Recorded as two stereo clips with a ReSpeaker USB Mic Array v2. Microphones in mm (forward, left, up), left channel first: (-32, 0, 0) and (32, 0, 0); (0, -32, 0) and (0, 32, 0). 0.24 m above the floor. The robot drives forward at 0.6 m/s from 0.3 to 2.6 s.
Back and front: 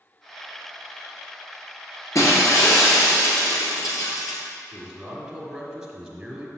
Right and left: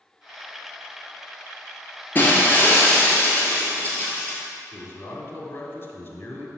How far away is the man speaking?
About 1.5 m.